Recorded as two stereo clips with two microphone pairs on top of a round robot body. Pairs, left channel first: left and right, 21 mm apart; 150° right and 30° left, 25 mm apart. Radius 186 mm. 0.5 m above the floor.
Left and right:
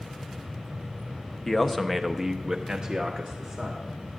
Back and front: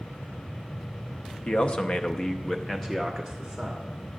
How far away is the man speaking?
About 1.2 m.